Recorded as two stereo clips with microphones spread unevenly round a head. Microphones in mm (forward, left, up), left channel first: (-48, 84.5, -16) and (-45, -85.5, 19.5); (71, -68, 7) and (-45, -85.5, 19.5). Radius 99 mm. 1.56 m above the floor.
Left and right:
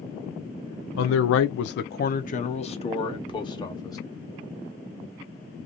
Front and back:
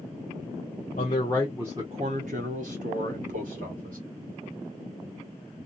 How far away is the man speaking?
About 0.5 m.